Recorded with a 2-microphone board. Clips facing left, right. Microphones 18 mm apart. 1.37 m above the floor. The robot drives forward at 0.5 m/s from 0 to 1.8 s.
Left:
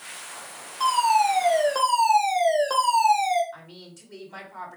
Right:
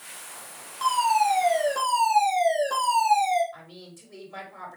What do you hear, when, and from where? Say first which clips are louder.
0.8 s a fire alarm: left 2 dB; 70° left (ahead or behind), 3.5 m
3.5 s a woman speaking: left 1 dB; 45° left (ahead or behind), 5 m